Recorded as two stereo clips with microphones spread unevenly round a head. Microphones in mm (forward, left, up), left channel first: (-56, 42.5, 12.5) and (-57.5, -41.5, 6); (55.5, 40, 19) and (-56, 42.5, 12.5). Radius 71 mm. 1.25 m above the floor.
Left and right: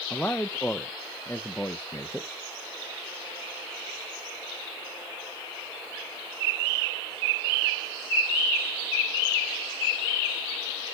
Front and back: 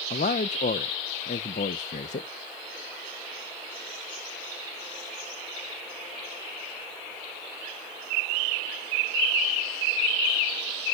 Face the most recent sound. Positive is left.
turn(degrees=10)